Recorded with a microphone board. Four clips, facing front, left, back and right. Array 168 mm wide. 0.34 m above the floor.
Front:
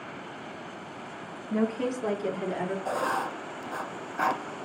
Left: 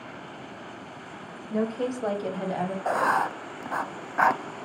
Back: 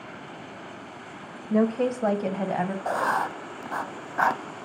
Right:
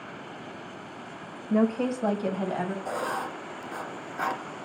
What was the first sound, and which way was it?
A woman speaking, 145° right.